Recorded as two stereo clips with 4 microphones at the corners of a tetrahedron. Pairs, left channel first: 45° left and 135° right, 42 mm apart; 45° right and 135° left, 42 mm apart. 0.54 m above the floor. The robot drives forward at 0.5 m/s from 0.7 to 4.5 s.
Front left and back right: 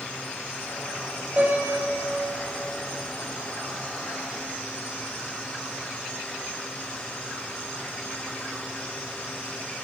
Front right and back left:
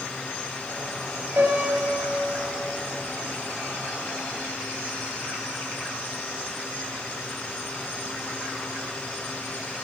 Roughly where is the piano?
Behind.